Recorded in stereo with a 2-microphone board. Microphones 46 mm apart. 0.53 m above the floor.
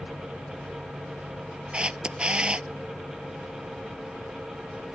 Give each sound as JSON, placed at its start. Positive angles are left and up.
{"t": 1.7, "sound": "a camera shutter", "side_deg": -20}